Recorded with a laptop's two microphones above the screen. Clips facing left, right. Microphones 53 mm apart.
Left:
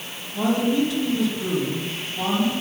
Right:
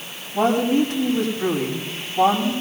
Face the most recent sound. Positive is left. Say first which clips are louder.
# right 3 dB
turn(degrees=-45)  # may be behind; listen again after turning